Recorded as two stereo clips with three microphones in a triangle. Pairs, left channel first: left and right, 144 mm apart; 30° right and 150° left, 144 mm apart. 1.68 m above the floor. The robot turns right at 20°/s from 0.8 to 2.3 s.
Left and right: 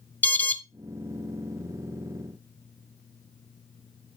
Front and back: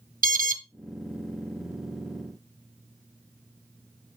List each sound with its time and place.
0.2 s an alarm: 165° left, 0.6 m